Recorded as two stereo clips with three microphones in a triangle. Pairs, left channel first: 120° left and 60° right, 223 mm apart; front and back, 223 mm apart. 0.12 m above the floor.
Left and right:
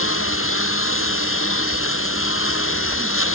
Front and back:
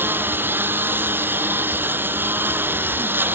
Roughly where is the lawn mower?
Left.